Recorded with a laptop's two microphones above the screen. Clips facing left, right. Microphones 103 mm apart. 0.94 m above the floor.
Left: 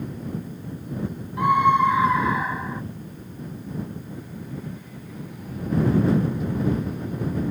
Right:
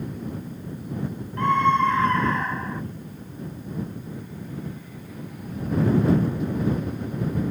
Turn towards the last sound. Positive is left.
turn(degrees=5)  # may be behind; listen again after turning